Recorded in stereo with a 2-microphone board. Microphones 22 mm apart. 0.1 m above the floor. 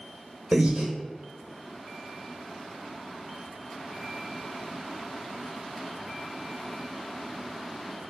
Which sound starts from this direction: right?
Breathing, at 0.5 s.